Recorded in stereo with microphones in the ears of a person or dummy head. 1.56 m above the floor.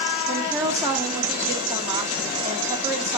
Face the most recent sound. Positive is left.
turn(degrees=-10)  # may be behind; listen again after turning